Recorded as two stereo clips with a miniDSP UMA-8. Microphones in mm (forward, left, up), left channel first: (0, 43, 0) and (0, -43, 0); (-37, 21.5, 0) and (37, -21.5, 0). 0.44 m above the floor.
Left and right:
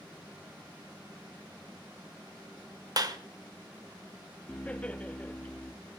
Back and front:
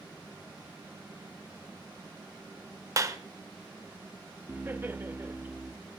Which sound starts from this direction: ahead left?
Laughter, at 4.5 s.